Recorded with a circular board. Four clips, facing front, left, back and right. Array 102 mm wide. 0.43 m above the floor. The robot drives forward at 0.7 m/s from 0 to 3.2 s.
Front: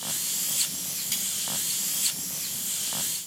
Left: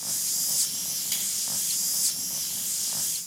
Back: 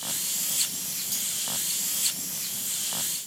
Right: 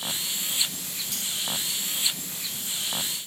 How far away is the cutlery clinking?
About 2.5 m.